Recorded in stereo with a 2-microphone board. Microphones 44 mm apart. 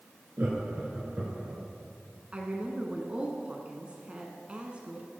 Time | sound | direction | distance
0.4 | laughter | 45° right (ahead or behind) | 2.5 m
2.3 | a woman speaking | 25° right (ahead or behind) | 1.2 m